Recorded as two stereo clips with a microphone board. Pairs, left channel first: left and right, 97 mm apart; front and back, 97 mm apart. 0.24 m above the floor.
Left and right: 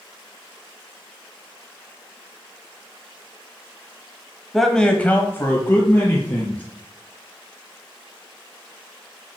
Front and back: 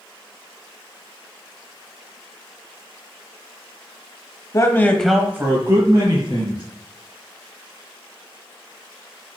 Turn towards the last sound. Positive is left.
turn(degrees=150)